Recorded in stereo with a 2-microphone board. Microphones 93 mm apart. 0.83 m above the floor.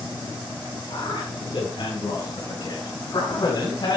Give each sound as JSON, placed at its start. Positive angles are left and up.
{"t": 0.9, "sound": "a man speaking", "side_deg": 65, "distance_m": 6.5}